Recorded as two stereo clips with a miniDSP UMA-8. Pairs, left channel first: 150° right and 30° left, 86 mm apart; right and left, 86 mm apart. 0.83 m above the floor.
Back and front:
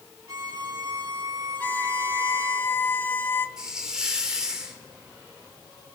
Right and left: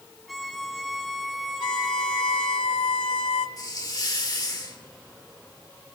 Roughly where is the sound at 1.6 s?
Right.